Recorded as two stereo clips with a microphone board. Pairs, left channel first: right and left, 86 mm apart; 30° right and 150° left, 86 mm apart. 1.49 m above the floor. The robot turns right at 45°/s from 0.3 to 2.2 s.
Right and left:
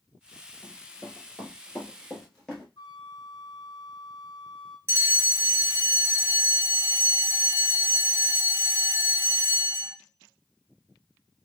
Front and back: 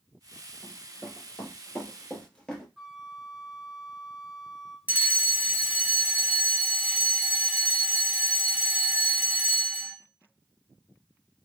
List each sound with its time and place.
0.6 s running footsteps: 65° right, 1.9 m
2.8 s a flute: 125° right, 0.5 m
4.9 s a fire alarm: 95° left, 0.7 m